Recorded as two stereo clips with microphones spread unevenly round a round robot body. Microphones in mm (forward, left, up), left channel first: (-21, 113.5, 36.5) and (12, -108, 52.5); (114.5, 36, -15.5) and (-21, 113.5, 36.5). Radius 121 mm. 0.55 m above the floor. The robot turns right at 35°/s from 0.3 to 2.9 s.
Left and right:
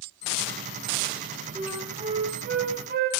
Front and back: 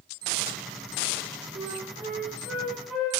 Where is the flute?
150° right, 1.1 m; by 3.1 s 105° right, 1.1 m.